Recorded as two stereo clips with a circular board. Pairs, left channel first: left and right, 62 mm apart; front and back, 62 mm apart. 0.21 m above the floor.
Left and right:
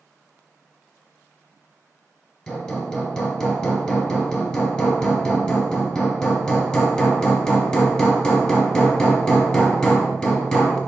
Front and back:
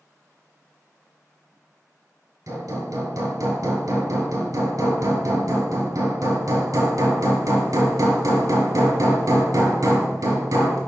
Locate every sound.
2.5 s hammering: 170° left, 2 m